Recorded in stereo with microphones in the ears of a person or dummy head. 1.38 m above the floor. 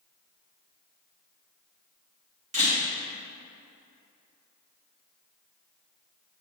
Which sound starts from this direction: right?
A camera shutter, at 2.5 s.